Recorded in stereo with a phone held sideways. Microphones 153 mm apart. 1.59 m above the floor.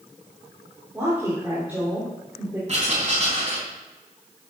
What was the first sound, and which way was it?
A woman speaking, 15° right (ahead or behind).